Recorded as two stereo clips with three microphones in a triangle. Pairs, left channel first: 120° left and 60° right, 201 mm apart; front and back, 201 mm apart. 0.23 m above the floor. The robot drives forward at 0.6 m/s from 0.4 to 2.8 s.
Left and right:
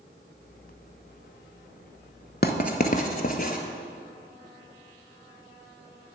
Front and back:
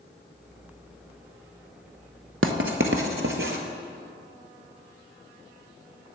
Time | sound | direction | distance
2.4 | writing | 165° left | 0.6 m